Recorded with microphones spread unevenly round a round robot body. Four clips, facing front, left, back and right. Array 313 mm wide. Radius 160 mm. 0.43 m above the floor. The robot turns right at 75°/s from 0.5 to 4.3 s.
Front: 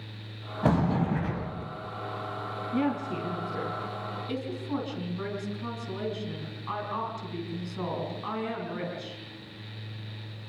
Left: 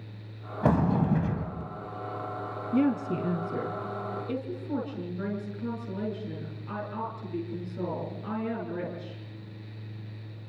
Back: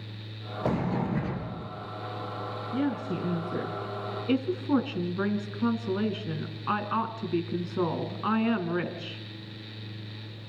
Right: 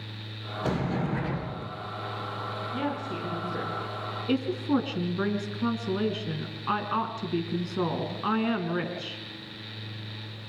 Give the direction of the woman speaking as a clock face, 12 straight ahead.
9 o'clock.